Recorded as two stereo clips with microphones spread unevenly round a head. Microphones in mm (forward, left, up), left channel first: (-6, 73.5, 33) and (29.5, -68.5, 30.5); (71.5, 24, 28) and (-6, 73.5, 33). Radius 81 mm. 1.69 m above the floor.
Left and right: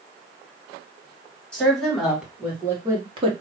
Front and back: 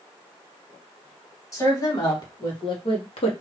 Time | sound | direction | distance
1.5 | a woman speaking | 20° left | 2 m